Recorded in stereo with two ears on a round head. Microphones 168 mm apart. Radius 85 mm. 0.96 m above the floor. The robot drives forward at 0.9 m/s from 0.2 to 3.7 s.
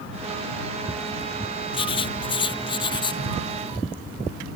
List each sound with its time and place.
1.7 s writing: 30° left (ahead or behind); by 3.2 s 25° left (ahead or behind)